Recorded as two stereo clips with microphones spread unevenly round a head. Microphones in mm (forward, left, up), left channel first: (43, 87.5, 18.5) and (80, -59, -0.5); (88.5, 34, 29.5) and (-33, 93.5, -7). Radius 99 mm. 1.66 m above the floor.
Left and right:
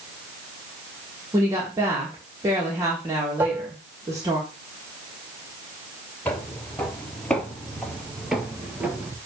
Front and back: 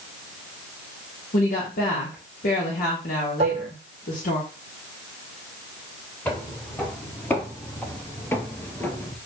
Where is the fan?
I don't hear a fan.